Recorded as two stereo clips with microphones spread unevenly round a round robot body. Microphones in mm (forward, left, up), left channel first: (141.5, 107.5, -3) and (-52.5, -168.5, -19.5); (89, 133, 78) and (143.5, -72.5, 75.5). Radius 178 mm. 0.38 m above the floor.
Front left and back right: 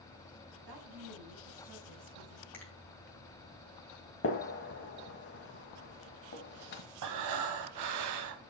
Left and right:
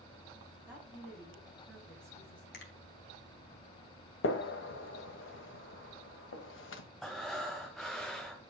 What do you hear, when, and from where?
0.7 s a woman speaking: 155° right, 4.5 m; by 2.4 s 175° right, 3.5 m
2.5 s a finger snap: 140° left, 2.0 m
4.2 s a gunshot: 115° left, 1.4 m
7.0 s breathing: 165° right, 0.9 m